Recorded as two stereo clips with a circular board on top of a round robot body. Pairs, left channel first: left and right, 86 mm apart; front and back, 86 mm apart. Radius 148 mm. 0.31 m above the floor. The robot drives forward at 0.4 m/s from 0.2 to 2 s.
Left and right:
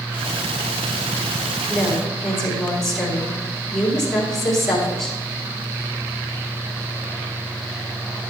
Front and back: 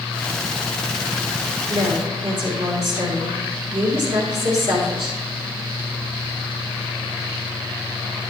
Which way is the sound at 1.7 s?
175° left.